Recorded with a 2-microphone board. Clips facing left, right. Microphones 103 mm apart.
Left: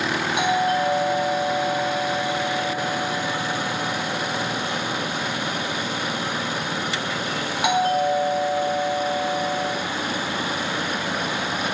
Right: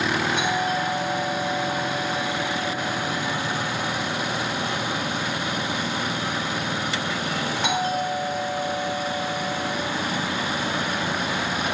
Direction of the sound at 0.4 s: 10° left (ahead or behind).